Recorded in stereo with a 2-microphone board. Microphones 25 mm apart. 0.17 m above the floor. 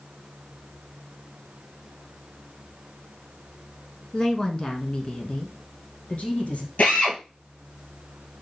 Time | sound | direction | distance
4.1 | a woman speaking | 25° left (ahead or behind) | 1.7 m
6.8 | a drill | 65° left (ahead or behind) | 4 m